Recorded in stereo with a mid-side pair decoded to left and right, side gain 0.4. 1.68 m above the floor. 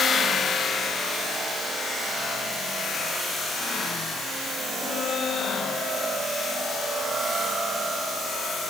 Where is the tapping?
No tapping in this recording.